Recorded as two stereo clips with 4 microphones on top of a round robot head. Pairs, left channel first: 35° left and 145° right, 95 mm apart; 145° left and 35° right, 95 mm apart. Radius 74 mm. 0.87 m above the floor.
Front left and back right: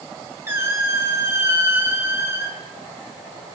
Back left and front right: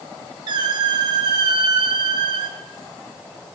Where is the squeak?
80° right, 1.2 m.